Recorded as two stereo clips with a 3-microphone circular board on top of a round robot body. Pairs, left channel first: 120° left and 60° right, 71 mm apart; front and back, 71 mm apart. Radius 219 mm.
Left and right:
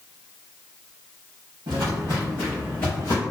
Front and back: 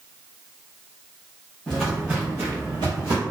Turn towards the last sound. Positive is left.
turn(degrees=170)